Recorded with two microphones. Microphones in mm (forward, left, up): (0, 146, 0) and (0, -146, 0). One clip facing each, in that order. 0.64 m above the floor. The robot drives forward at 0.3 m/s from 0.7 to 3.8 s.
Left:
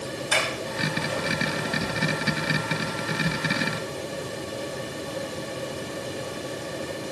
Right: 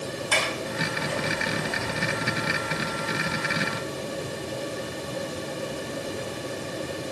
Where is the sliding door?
5° left (ahead or behind), 6 m.